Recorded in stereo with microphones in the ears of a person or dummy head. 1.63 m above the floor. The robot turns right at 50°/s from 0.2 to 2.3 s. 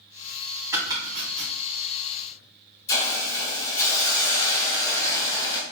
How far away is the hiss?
About 0.7 m.